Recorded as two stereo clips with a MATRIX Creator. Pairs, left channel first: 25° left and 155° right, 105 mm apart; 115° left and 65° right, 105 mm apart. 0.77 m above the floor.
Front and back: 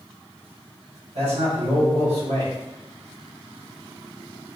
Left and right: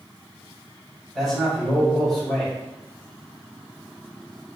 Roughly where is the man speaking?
Behind.